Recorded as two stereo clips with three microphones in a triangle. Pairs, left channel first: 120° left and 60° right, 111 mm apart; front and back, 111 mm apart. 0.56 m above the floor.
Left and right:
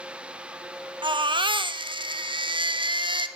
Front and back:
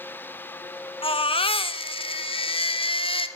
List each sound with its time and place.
1.0 s a baby crying: 25° right, 0.6 m